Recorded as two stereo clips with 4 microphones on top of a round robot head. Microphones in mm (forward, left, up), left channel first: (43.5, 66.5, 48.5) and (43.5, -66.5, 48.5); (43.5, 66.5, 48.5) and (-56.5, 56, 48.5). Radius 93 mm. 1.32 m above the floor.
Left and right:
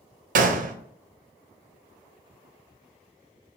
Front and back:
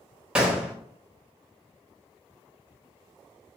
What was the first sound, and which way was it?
A gunshot, 90° right.